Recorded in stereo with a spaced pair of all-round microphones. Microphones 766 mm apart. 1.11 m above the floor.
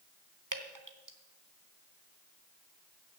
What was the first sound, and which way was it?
Dripping, 25° right (ahead or behind).